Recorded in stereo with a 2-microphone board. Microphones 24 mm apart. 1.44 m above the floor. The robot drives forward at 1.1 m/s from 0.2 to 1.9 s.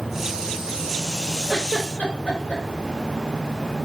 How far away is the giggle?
About 4.5 m.